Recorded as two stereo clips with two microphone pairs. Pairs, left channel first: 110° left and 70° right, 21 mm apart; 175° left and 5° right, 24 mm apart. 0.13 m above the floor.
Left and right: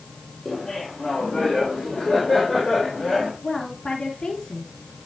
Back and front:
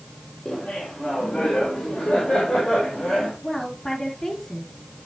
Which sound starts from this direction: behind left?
A woman speaking, at 3.4 s.